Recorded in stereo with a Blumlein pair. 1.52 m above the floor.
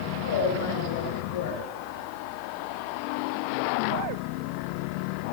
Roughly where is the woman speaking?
Ahead left.